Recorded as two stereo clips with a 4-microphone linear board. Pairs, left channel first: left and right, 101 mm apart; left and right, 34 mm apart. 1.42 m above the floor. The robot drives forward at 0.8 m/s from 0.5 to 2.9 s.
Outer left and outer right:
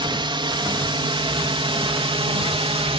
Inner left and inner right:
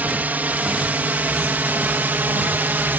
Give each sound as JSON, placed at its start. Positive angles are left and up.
{"t": 0.0, "sound": "a drone", "side_deg": -55}